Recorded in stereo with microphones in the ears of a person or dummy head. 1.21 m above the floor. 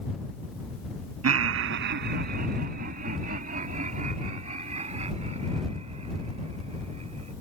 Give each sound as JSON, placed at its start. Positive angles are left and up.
{"t": 1.2, "sound": "laughter", "side_deg": -80}